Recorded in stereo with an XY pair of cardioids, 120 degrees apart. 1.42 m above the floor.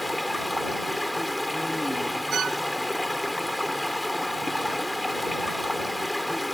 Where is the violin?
50° right.